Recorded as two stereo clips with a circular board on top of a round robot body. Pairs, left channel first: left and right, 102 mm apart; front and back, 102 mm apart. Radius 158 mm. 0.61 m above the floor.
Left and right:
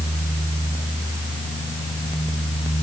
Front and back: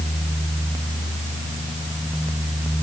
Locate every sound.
Only background noise.